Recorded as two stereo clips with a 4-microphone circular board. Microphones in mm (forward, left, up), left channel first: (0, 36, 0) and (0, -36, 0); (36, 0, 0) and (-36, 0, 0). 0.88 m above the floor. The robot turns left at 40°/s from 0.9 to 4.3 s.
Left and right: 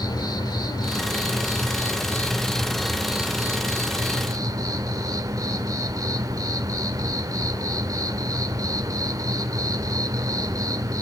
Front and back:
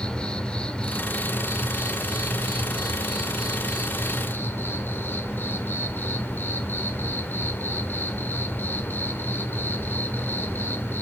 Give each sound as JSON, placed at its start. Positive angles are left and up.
{"t": 0.0, "sound": "an insect", "azimuth_deg": 75, "distance_m": 1.2}